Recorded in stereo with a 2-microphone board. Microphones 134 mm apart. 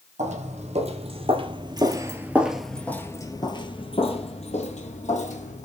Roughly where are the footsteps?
Right.